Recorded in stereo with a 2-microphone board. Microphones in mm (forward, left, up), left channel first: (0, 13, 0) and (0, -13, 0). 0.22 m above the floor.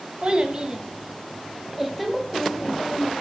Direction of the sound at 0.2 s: 40° right (ahead or behind).